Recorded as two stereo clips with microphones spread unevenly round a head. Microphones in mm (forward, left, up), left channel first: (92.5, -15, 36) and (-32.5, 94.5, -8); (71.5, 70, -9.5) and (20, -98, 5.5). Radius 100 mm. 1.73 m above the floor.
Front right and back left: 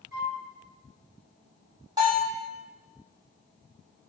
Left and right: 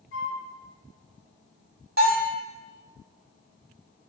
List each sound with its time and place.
0.1 s a flute: 125° left, 1.7 m
2.0 s a bell: 145° right, 1.2 m